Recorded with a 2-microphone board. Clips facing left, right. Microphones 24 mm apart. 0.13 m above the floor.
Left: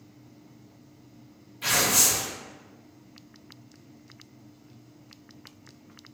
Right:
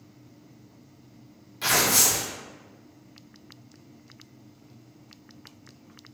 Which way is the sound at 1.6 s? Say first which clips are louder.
Right 1 dB; 60° right (ahead or behind).